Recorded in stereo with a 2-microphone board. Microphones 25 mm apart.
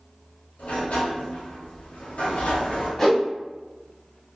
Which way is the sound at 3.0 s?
10° left (ahead or behind).